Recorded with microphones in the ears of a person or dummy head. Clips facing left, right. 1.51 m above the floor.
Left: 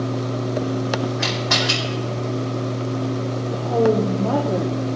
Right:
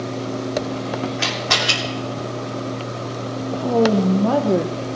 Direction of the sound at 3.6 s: 65° right (ahead or behind).